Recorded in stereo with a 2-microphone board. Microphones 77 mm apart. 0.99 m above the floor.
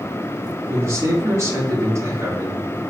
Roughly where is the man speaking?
Right.